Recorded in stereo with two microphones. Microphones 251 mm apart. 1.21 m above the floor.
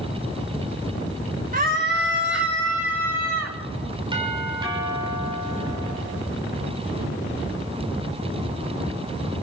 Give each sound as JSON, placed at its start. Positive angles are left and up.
{"t": 1.5, "sound": "a scream", "side_deg": -35, "distance_m": 1.2}
{"t": 4.1, "sound": "a doorbell", "side_deg": -20, "distance_m": 7.0}